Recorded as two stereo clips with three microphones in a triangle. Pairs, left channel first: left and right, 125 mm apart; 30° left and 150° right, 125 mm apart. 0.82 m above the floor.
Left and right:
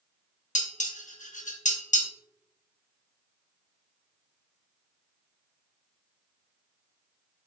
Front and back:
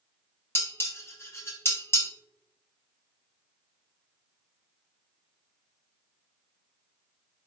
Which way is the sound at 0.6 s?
100° left.